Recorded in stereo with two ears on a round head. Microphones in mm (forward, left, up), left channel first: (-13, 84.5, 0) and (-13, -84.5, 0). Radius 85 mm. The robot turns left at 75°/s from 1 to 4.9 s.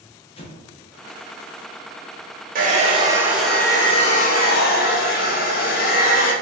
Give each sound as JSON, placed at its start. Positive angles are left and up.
{"t": 0.4, "sound": "an explosion", "side_deg": 30, "distance_m": 0.7}
{"t": 2.5, "sound": "a hair dryer", "azimuth_deg": -115, "distance_m": 0.9}